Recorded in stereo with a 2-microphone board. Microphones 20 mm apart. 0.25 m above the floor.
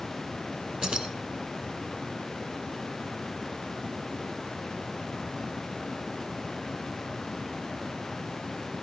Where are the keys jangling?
45° right (ahead or behind), 2 m.